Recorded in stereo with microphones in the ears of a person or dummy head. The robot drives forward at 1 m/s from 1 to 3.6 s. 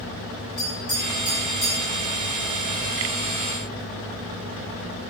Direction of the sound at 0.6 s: 15° right (ahead or behind).